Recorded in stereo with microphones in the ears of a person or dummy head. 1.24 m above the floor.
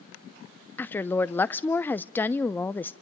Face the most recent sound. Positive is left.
turn(degrees=5)  # may be behind; listen again after turning